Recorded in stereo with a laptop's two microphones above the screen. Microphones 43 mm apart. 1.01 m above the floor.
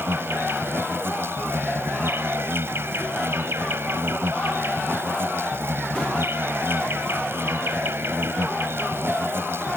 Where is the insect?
70° right (ahead or behind).